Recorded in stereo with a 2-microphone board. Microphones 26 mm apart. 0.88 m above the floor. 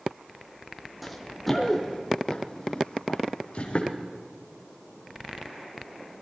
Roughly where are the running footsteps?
Centre.